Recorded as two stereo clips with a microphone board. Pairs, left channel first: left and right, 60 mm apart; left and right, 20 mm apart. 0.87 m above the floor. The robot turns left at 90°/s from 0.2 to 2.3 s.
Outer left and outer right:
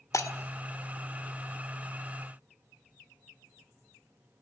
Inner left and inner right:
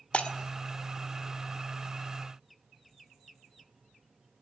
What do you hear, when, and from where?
0.1 s breaking glass: 65° left (ahead or behind), 1.6 m; by 0.3 s 75° left (ahead or behind), 1.6 m